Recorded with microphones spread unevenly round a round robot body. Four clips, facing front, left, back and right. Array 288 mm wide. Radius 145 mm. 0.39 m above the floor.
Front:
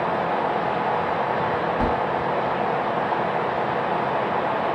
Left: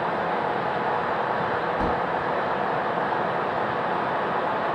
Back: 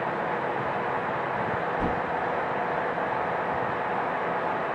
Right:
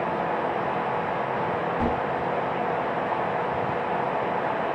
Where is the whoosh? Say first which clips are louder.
Even, front 5 dB; straight ahead, 6.5 m.